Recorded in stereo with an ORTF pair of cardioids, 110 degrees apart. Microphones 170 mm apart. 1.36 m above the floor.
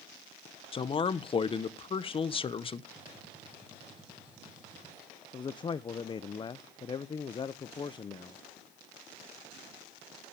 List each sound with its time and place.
0.7 s a man speaking: 30° left, 1.0 m
3.0 s a gunshot: 5° right, 7.5 m
5.3 s a man speaking: 25° left, 0.6 m